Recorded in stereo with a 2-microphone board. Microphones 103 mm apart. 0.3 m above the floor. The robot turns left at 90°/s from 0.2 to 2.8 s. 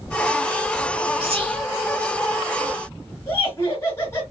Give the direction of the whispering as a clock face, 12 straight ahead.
2 o'clock.